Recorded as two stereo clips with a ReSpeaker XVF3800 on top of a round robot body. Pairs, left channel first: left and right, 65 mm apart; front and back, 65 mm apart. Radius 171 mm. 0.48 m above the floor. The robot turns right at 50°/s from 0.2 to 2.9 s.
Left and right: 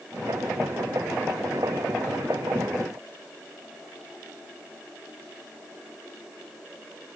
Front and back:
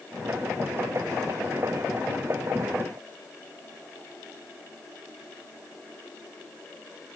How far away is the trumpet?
No trumpet in this recording.